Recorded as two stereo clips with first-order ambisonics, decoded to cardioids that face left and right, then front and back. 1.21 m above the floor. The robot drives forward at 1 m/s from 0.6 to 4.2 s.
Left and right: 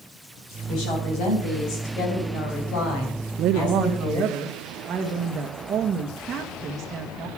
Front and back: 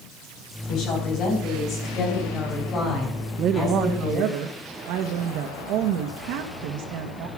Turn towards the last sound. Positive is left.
turn(degrees=-155)